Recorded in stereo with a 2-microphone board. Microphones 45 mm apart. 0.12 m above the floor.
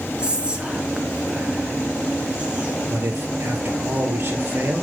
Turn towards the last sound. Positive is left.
turn(degrees=-60)  # may be behind; listen again after turning